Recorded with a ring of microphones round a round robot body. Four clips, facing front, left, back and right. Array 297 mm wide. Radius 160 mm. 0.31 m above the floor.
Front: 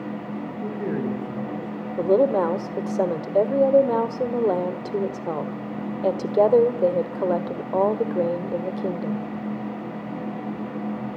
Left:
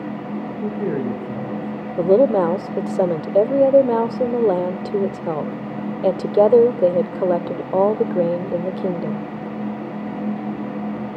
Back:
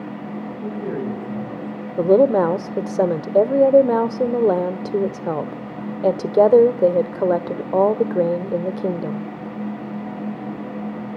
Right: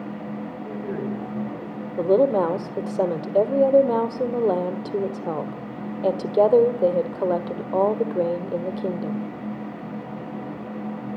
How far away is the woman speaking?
About 1.4 m.